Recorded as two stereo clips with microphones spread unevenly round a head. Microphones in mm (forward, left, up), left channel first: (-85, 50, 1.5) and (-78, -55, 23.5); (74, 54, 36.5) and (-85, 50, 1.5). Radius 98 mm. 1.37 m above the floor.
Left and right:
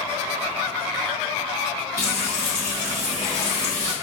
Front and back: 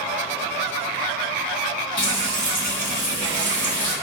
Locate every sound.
2.0 s frying: 35° right, 1.2 m